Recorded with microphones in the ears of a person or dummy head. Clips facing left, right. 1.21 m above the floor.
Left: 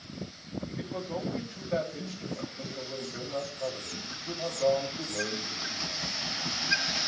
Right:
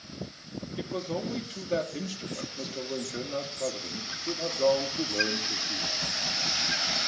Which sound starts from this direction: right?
A man speaking, at 0.8 s.